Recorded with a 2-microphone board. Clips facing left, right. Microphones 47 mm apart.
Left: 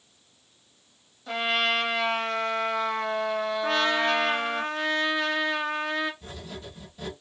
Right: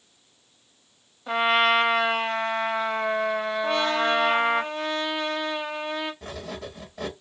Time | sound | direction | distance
1.3 | a trumpet | 20° right (ahead or behind) | 1.1 m
3.6 | a trumpet | 65° left (ahead or behind) | 1.6 m
6.2 | writing | 75° right (ahead or behind) | 0.8 m